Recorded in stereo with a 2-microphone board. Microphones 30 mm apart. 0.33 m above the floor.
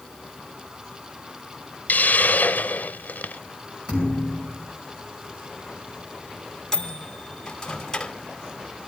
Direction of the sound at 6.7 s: 15° left (ahead or behind).